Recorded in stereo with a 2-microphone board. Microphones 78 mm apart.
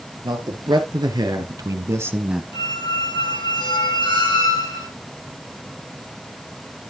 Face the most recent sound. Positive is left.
turn(degrees=90)